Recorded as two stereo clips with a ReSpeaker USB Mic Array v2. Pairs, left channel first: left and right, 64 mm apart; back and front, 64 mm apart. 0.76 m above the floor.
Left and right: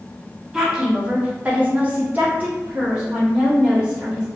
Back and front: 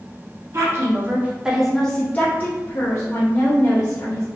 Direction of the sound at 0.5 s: 10° right.